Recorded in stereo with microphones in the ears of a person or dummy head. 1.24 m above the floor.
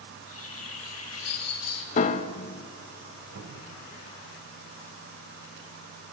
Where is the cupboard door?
75° right (ahead or behind), 3 m.